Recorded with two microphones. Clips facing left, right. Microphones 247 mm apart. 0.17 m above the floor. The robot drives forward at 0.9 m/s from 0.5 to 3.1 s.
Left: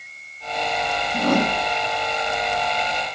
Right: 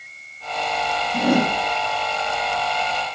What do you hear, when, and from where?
1.1 s a whoosh: 10° right (ahead or behind), 1.3 m